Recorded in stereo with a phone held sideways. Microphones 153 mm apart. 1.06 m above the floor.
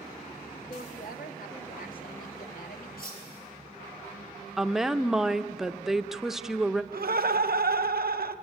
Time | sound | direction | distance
0.7 | a woman speaking | 70° left (ahead or behind) | 1.9 m
3.0 | cutlery clinking | 75° left (ahead or behind) | 4 m
4.6 | a woman speaking | centre (ahead or behind) | 0.6 m
6.9 | laughter | 80° right | 0.9 m